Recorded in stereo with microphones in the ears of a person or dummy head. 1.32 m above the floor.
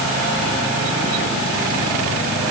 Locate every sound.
Only background noise.